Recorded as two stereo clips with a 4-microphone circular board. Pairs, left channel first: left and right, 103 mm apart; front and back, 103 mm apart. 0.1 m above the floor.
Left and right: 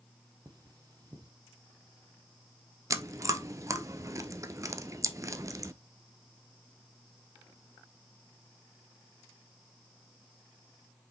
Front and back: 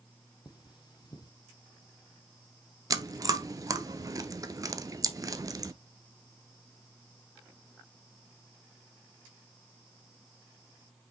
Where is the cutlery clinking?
45° right, 1.6 m.